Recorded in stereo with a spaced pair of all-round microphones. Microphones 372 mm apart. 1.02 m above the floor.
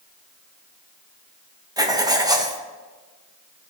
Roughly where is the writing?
Centre.